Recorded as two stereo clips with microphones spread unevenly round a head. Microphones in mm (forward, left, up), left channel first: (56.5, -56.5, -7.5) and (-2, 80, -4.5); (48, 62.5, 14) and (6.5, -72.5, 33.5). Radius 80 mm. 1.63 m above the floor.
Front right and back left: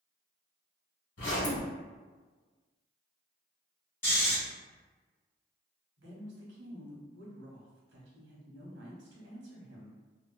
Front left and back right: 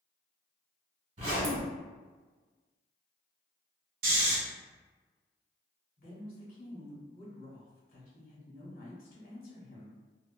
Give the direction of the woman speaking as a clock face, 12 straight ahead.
8 o'clock.